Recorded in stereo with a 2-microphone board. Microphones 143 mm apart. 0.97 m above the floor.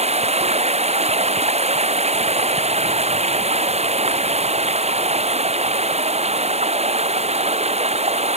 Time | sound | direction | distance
0.0 | running water | 50° right (ahead or behind) | ?